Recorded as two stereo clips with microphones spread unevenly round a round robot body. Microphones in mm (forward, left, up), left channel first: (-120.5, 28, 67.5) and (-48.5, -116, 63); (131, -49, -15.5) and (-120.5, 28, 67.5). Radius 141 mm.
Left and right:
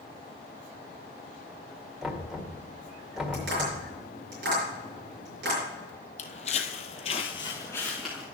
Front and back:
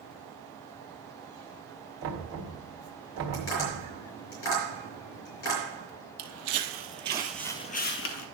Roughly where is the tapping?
Ahead right.